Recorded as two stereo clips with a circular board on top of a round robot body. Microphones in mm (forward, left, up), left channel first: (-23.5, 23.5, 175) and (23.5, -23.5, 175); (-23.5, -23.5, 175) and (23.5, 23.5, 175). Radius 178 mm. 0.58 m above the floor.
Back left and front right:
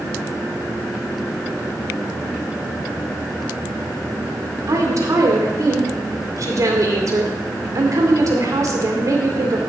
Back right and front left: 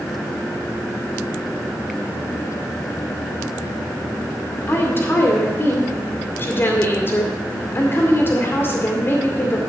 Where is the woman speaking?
80° right, 2.5 m.